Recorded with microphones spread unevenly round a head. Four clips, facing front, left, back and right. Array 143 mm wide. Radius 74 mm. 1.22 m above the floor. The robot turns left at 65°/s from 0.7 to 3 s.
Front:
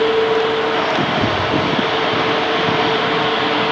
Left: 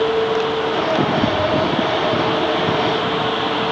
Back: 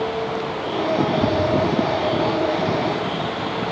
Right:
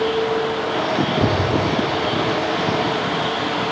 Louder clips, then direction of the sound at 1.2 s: Left 2 dB, front 1 dB; 75° right.